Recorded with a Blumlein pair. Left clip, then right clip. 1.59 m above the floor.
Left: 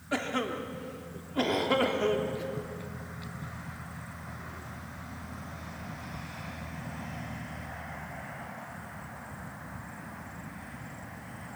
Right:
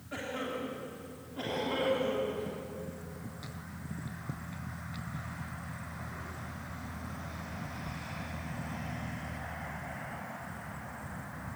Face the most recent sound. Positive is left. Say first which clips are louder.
# left 5 dB
turn(degrees=30)